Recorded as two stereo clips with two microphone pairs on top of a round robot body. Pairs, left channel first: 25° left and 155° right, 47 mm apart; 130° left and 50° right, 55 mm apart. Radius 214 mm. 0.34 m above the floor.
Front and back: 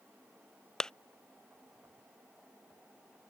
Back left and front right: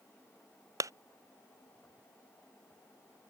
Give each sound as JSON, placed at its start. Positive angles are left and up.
{"t": 0.8, "sound": "a clap", "azimuth_deg": -50}